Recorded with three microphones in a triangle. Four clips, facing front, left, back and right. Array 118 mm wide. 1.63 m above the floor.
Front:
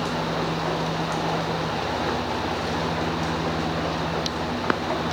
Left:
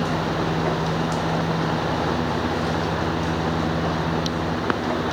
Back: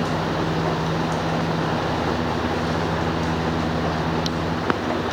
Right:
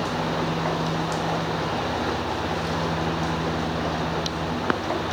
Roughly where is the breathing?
I don't hear breathing.